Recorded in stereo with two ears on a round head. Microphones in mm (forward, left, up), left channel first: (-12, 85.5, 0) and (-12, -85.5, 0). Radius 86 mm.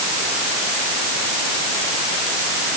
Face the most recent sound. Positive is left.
No sound to turn to.